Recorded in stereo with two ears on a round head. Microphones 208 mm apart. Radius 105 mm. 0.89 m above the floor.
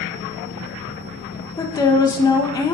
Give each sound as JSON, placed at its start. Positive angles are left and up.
{"t": 1.6, "sound": "a woman speaking", "side_deg": 15, "distance_m": 0.6}